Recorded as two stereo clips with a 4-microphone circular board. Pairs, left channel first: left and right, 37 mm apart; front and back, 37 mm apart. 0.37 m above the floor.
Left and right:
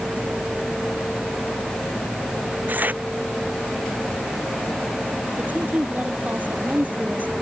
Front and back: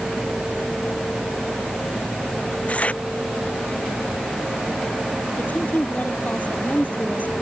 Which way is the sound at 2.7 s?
50° right.